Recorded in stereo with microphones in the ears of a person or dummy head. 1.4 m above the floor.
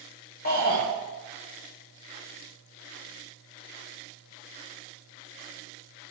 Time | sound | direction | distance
0.5 | a shout | 50° left (ahead or behind) | 1.3 m